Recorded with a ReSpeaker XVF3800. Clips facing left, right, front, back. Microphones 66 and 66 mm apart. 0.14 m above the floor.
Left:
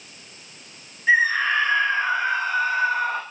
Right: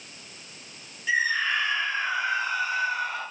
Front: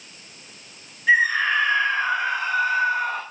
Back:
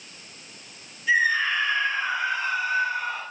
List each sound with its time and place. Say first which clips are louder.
1.1 s a scream: left 6 dB, front 3 dB; 40° left, 8.5 m